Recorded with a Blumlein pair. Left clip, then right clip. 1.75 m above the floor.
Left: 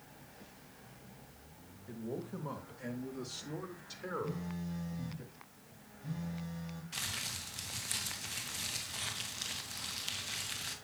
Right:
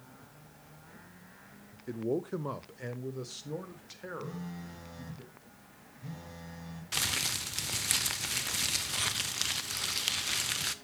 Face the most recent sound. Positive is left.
turn(degrees=-40)